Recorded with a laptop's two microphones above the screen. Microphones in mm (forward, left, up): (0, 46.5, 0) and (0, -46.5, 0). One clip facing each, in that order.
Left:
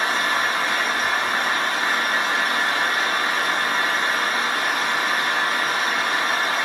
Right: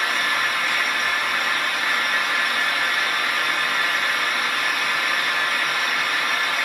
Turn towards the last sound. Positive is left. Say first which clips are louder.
# left 2 dB
turn(degrees=30)  # may be behind; listen again after turning